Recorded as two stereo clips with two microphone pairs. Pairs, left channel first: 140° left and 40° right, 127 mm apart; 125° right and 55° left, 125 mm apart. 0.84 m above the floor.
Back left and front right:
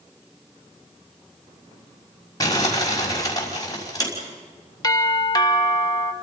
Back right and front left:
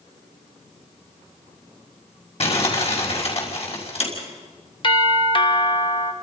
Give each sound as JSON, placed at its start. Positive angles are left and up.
{"t": 2.4, "sound": "crumpling", "azimuth_deg": -160, "distance_m": 5.5}
{"t": 4.8, "sound": "a doorbell", "azimuth_deg": -170, "distance_m": 1.4}